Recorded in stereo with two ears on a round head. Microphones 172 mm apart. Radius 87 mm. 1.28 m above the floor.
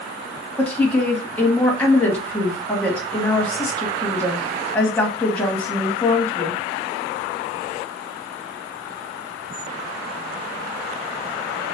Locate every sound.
0.6 s a woman speaking: 5° left (ahead or behind), 1.1 m